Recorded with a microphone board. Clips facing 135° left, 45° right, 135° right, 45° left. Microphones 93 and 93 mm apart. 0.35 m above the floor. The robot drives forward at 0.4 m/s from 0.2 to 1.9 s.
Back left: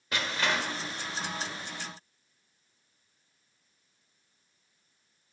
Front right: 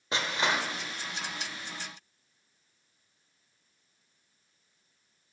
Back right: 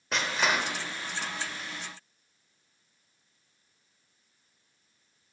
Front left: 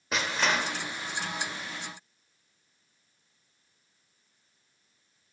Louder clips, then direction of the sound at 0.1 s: Front right 1 dB, even; 40° right.